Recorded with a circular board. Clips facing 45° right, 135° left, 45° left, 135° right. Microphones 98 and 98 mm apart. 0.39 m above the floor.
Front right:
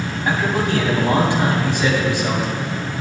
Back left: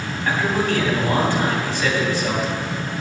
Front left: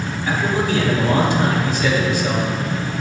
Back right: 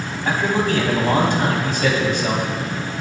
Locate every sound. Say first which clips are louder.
0.2 s a man speaking: front right 1 dB, back right 1 dB; 115° right, 3 m